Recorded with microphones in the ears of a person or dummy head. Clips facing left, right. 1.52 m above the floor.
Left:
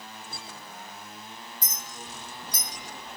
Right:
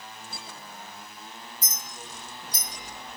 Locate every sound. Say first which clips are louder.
1.6 s a clink: left 1 dB; 45° left (ahead or behind), 1.4 m